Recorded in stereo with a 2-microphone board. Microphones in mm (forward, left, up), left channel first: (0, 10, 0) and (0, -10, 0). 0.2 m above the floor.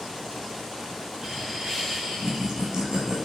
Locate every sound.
1.2 s laughter: 25° right (ahead or behind), 2 m; by 3.2 s 40° right (ahead or behind), 1.3 m